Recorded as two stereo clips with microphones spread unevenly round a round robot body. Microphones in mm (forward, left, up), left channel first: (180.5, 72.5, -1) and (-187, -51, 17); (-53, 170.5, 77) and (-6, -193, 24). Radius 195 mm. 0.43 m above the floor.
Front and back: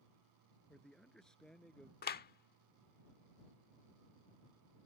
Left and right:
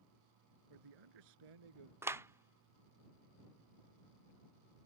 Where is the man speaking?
70° right.